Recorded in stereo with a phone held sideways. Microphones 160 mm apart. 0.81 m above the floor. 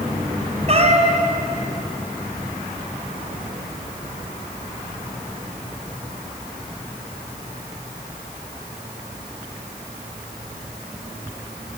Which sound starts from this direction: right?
A cat meowing, at 0.7 s.